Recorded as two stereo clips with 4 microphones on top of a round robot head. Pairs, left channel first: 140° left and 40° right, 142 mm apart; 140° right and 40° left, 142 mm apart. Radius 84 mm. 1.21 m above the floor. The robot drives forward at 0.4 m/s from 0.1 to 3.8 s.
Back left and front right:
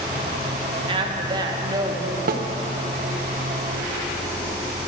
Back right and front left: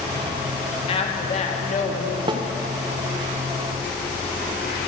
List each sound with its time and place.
0.9 s a woman speaking: 90° right, 1.6 m; by 2.2 s 110° right, 1.6 m
2.3 s a snare drum: 20° right, 0.9 m